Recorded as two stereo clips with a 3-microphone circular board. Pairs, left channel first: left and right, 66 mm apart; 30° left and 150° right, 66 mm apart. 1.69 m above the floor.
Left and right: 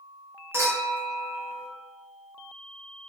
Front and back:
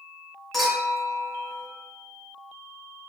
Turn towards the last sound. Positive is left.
turn(degrees=-55)